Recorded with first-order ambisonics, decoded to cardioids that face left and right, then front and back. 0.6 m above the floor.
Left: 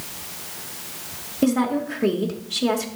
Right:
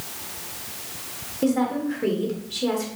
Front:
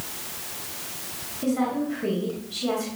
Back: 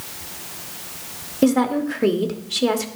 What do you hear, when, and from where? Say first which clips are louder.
1.4 s a woman speaking: left 2 dB, back 7 dB; 165° left, 1.4 m